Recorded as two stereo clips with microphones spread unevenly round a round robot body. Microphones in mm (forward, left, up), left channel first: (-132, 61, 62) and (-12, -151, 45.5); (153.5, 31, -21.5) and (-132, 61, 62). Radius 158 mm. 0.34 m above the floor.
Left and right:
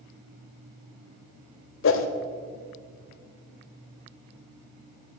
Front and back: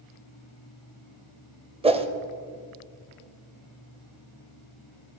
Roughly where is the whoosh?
Left.